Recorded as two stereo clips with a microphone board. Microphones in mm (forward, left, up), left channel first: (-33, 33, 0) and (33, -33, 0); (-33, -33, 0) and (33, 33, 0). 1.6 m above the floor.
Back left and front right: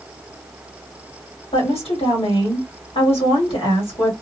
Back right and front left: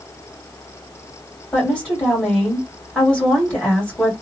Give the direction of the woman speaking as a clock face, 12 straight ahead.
7 o'clock.